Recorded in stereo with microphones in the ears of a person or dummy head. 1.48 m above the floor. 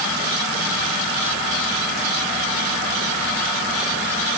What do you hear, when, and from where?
Only background noise.